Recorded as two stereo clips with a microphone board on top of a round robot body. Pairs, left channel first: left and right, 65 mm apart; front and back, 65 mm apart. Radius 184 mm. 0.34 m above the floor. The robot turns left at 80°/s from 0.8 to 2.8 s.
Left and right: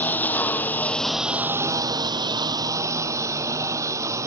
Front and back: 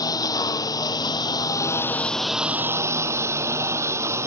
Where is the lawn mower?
25° left; by 4.3 s 135° right.